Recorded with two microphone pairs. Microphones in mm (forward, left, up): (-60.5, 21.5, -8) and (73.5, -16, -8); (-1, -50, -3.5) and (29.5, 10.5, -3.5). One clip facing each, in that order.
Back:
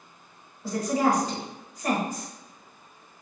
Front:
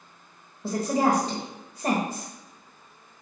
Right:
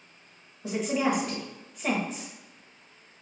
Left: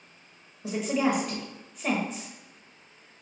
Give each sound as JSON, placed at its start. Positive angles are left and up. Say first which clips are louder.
{"t": 0.6, "sound": "a woman speaking", "louder": "front 1 dB, left 1 dB", "azimuth_deg": -25, "distance_m": 1.0}